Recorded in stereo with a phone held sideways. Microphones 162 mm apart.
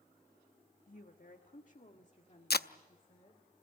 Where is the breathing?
No breathing in this recording.